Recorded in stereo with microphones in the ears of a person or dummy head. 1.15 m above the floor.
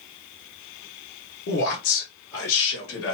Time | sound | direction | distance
1.5 | a man speaking | 50° left (ahead or behind) | 0.9 m